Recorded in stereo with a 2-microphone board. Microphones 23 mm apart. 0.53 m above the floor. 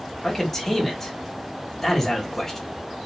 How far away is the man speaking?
About 1.0 m.